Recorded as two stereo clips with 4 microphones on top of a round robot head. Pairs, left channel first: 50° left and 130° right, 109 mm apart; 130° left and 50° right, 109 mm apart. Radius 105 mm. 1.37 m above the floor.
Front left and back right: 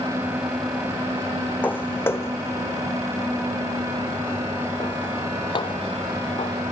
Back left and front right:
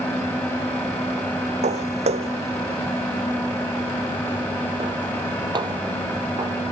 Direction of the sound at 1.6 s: 25° right.